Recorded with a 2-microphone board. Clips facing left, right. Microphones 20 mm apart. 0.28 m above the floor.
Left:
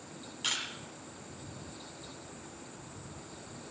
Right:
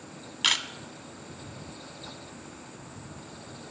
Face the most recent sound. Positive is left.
turn(degrees=-50)  # may be behind; listen again after turning